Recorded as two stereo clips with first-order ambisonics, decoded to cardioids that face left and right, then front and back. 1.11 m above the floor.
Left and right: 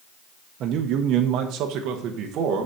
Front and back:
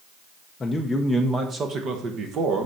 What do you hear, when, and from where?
0.6 s a man speaking: 70° right, 0.6 m; by 2.6 s 135° right, 1.3 m